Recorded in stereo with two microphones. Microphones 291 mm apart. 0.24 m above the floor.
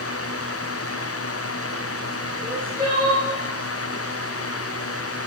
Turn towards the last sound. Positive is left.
turn(degrees=-30)  # may be behind; listen again after turning